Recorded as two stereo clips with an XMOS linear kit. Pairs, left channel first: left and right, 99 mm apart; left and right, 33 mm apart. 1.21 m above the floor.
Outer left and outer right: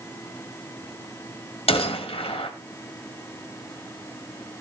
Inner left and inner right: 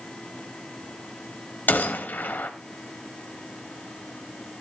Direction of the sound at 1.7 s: 75° left (ahead or behind).